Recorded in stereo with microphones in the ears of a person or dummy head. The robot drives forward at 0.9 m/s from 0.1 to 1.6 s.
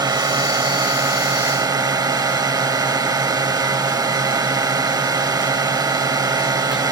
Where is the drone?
25° right (ahead or behind).